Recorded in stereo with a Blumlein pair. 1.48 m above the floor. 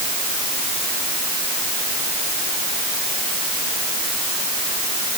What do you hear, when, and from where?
Only background noise.